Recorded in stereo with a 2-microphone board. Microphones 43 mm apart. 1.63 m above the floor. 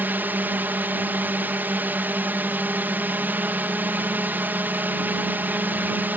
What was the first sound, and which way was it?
A drone, 50° right (ahead or behind).